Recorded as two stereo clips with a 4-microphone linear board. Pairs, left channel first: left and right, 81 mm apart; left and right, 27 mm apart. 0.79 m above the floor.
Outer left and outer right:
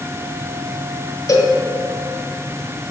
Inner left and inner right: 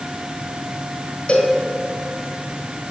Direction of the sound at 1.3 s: 45° left (ahead or behind).